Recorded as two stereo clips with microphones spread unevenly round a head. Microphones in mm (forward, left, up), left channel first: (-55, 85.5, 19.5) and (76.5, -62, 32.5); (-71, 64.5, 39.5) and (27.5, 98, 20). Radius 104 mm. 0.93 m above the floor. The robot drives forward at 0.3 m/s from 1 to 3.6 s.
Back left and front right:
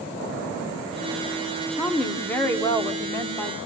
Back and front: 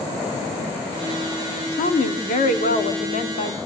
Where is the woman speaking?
145° right, 1.6 m; by 3.6 s 150° right, 2 m.